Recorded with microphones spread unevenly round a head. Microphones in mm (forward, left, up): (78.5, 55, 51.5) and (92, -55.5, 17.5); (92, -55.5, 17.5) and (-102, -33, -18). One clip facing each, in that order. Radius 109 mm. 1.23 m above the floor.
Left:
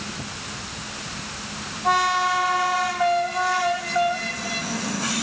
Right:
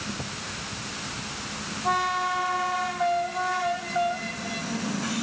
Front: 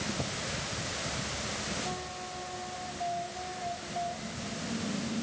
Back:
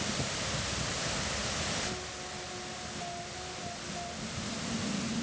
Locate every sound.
Only background noise.